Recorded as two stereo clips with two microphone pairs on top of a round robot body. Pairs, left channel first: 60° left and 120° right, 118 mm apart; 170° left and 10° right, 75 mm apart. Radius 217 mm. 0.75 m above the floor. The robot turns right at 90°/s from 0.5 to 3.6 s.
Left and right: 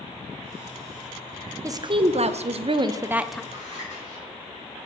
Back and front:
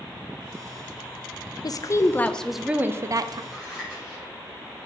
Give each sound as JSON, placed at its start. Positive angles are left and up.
{"t": 1.6, "sound": "a woman speaking", "azimuth_deg": 180, "distance_m": 0.5}
{"t": 3.5, "sound": "scissors", "azimuth_deg": 65, "distance_m": 3.5}